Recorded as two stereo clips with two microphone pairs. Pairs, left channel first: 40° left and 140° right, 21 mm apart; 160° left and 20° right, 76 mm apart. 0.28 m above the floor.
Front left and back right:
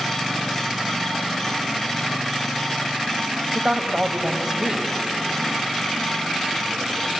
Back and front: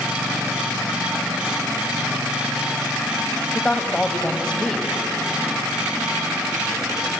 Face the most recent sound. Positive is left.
turn(degrees=-135)